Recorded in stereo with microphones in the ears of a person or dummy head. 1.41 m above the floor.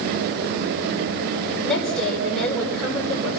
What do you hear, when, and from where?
1.6 s a woman speaking: centre (ahead or behind), 5.5 m